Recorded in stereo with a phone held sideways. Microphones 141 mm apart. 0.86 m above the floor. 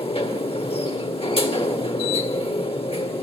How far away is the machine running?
About 1.6 m.